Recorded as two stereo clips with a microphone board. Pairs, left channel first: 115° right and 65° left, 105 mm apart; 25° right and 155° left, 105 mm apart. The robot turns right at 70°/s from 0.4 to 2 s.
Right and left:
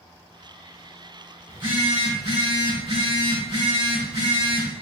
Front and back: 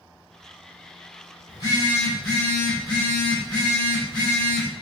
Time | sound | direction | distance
1.5 | a phone buzzing | 20° left | 3 m